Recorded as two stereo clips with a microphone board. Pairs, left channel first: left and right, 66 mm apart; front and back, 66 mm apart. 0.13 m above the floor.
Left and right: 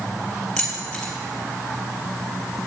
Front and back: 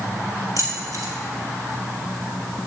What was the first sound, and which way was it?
Keys jangling, 170° left.